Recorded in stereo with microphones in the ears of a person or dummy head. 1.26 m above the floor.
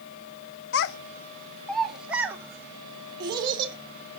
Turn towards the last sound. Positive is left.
turn(degrees=-25)  # may be behind; listen again after turning